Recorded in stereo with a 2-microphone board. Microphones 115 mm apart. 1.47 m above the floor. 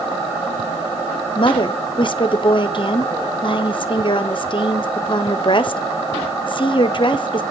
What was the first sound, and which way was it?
A woman speaking, 45° left (ahead or behind).